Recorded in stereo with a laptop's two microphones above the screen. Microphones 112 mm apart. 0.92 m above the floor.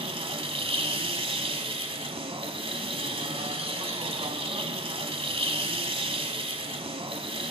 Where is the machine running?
55° right (ahead or behind), 1.2 m.